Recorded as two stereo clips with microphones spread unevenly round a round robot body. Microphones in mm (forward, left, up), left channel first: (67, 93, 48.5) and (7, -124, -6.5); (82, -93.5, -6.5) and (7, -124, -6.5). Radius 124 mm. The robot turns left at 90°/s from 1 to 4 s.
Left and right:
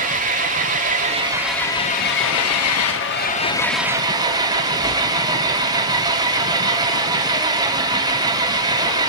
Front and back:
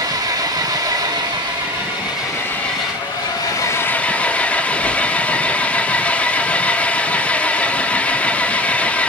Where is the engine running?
135° right, 1.0 m; by 9.1 s 45° right, 1.0 m.